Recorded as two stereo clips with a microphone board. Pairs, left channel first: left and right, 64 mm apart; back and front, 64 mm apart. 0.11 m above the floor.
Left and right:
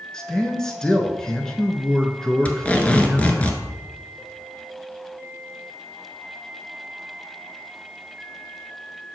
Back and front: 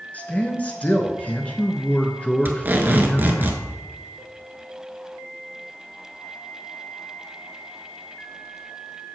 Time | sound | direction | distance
0.1 | a man speaking | 160° left | 1.1 m
2.5 | tape being pulled | 35° left | 1.0 m